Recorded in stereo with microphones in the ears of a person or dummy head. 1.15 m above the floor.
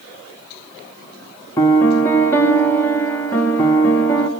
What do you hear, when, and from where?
1.6 s a piano: 10° left (ahead or behind), 1.6 m